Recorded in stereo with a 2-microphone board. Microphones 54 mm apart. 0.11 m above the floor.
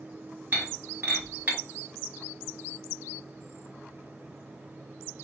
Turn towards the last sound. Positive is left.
turn(degrees=-30)  # may be behind; listen again after turning